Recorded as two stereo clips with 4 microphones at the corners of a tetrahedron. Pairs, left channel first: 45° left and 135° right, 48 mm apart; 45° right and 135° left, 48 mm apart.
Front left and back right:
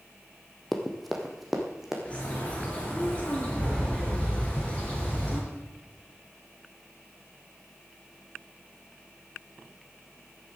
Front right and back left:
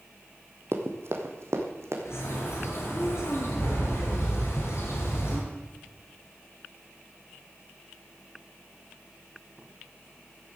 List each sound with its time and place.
0.7 s running footsteps: 130° left, 1.6 m; by 1.9 s 145° left, 2.5 m
2.0 s a bird: 20° right, 4 m